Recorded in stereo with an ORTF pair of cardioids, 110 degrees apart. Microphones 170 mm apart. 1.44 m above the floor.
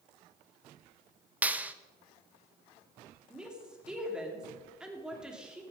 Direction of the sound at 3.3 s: 5° right.